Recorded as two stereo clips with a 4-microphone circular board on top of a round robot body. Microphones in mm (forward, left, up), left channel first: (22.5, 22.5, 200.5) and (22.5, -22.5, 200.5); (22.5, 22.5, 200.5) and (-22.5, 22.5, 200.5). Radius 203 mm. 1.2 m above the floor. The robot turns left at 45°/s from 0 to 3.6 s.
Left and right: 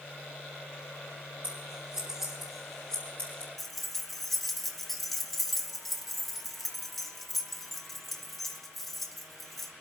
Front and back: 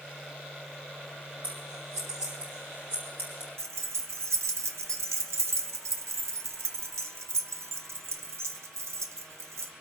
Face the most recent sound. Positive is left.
turn(degrees=175)